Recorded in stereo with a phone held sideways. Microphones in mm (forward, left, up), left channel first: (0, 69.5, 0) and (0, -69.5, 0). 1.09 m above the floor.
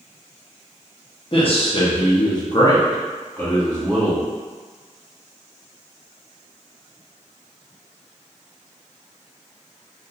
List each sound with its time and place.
1.3 s a man speaking: 45° left (ahead or behind), 1.0 m; by 4.2 s 5° left (ahead or behind), 1.3 m